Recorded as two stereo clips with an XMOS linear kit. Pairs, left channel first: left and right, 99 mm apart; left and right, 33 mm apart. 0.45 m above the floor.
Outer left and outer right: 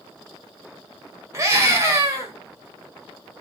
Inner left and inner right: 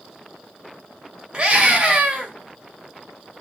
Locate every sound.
1.3 s a scream: 30° right (ahead or behind), 2.5 m